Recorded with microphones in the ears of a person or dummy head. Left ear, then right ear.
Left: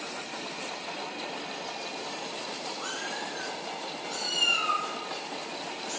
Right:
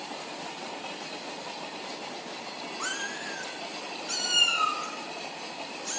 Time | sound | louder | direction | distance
2.8 | a cat meowing | right 4 dB | 35° right (ahead or behind) | 0.6 m